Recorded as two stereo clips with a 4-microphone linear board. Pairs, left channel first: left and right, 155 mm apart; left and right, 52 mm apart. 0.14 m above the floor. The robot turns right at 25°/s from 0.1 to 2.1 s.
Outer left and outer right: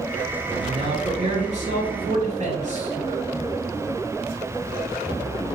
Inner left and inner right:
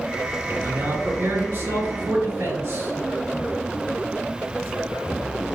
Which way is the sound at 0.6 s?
130° right.